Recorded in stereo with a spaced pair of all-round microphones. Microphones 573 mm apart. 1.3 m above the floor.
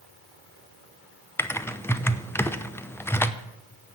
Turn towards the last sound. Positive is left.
turn(degrees=5)  # may be behind; listen again after turning